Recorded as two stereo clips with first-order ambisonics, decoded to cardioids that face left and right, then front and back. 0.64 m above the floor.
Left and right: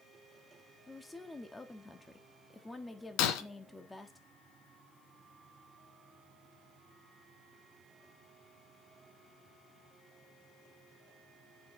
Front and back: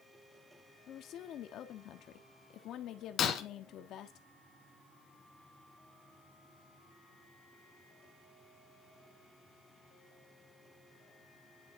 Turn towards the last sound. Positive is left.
turn(degrees=65)